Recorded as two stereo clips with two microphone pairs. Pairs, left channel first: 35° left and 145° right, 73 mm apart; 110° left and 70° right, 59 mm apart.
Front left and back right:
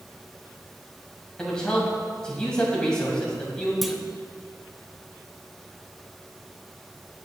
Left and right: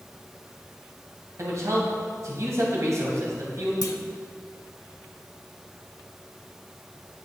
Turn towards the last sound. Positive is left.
turn(degrees=125)